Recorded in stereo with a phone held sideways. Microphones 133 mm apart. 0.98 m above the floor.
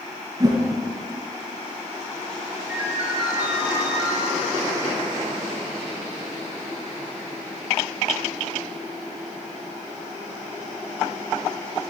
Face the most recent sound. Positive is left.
turn(degrees=-5)  # may be behind; listen again after turning